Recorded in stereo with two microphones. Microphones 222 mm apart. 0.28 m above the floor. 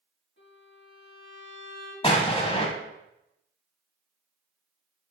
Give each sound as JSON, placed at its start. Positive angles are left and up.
{"t": 0.4, "sound": "a violin", "side_deg": 50, "distance_m": 2.0}
{"t": 2.0, "sound": "an explosion", "side_deg": 25, "distance_m": 0.7}